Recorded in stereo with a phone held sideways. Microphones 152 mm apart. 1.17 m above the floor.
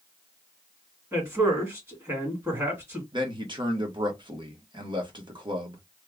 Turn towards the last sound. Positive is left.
turn(degrees=-30)  # may be behind; listen again after turning